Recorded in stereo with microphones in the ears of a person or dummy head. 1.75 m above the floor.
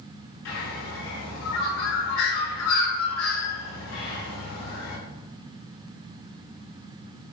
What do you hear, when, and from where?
0.5 s a bird: 80° left, 3 m